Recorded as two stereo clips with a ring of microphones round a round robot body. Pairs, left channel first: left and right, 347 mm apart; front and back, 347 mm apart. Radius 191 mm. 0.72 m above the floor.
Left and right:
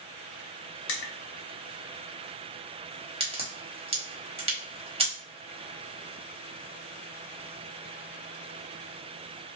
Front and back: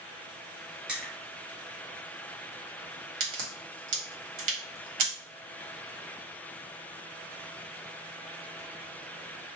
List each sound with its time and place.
0.9 s crushing: 95° left, 0.5 m
3.2 s a crack: 165° right, 1.4 m